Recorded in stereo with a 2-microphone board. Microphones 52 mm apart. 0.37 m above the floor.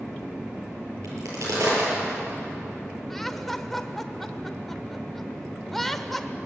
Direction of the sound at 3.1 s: 5° left (ahead or behind).